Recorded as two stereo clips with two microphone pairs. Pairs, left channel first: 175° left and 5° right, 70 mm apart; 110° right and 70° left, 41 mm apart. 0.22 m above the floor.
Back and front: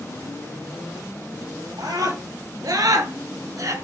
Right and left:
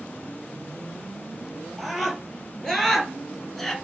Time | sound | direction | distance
1.8 | a scream | 25° right | 5 m